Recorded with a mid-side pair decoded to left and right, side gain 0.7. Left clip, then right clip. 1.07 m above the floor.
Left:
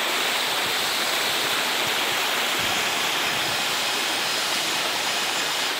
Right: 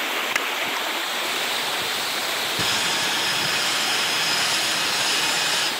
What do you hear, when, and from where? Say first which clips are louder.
2.6 s sawing: right 1 dB; 40° right, 8.5 m